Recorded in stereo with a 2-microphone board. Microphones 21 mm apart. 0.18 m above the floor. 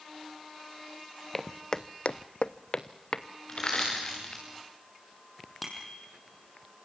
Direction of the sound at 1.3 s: 15° left (ahead or behind).